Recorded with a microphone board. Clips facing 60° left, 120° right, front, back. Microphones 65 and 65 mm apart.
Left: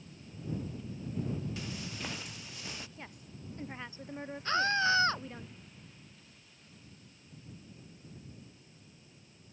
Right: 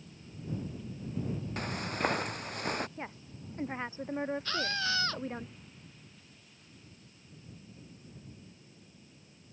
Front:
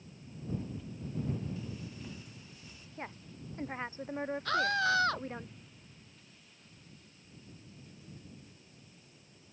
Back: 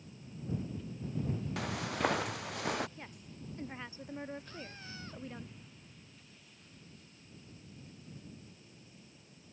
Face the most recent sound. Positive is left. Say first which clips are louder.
# left 5 dB, front 19 dB
turn(degrees=-5)